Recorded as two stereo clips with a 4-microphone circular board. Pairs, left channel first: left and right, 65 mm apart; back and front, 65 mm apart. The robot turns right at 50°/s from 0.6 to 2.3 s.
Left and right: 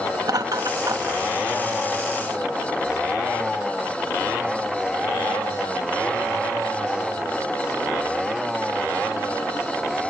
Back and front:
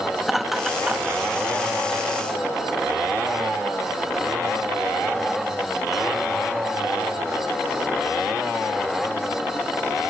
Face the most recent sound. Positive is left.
turn(degrees=0)